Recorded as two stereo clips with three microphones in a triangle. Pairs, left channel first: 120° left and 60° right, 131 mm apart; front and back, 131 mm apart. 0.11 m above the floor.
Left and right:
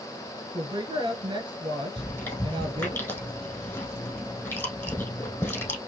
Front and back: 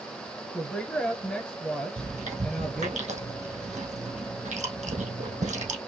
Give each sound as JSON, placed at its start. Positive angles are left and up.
{"t": 0.5, "sound": "a woman speaking", "azimuth_deg": -75, "distance_m": 1.8}
{"t": 2.0, "sound": "chewing", "azimuth_deg": -170, "distance_m": 3.0}